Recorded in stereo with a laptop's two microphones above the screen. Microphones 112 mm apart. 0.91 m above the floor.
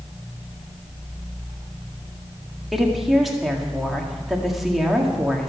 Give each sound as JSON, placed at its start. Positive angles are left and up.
{"t": 2.7, "sound": "a woman speaking", "side_deg": 0, "distance_m": 1.9}